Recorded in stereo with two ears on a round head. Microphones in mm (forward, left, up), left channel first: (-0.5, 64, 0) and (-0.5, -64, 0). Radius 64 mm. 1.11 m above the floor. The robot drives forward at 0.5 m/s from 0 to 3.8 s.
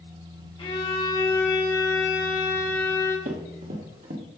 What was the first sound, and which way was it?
A violin, 35° left (ahead or behind).